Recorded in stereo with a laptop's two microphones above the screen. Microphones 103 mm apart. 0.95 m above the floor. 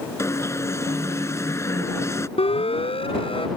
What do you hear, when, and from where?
0.2 s an alarm: 30° left (ahead or behind)
2.4 s a siren: 70° left (ahead or behind); by 3.5 s 60° left (ahead or behind)